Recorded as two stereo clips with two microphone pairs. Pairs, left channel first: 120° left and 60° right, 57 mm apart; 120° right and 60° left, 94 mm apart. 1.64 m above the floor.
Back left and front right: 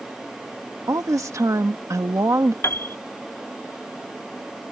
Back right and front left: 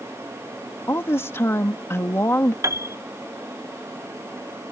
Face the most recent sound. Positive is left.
turn(degrees=100)